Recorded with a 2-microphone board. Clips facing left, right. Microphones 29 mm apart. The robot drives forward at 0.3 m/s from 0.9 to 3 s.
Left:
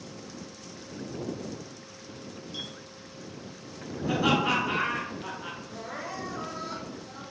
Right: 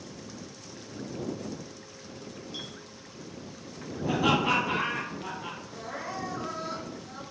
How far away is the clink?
About 0.7 m.